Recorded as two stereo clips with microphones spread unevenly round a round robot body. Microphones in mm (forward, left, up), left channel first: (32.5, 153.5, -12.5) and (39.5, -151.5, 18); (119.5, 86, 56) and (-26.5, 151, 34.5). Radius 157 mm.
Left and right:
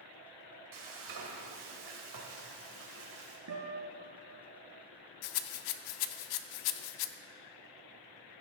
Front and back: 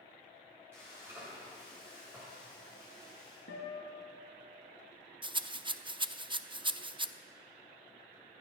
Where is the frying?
125° right, 2.5 m.